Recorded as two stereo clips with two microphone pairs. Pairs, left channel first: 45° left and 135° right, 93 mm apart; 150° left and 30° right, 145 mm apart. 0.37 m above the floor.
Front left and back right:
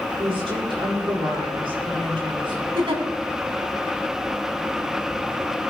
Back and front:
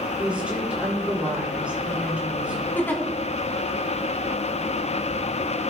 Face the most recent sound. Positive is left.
turn(degrees=-135)